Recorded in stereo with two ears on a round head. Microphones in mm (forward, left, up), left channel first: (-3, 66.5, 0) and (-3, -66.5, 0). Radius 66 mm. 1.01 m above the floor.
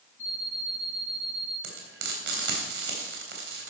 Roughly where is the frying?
Right.